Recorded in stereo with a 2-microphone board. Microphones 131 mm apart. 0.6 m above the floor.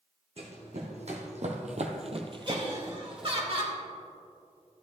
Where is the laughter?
50° right (ahead or behind), 1.9 m.